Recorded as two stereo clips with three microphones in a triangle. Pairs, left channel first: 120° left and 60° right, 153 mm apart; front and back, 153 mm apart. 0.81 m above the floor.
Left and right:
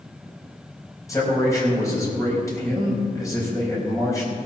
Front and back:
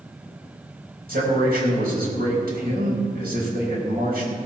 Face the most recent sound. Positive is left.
turn(degrees=-170)